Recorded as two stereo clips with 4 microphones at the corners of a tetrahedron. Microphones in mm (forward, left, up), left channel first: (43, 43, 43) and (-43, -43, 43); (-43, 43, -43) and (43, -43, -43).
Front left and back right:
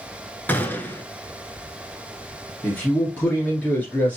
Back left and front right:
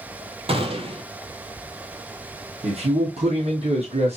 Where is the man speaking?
30° right, 2 m.